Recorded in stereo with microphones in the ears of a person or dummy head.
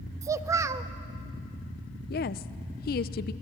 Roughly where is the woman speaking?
Left.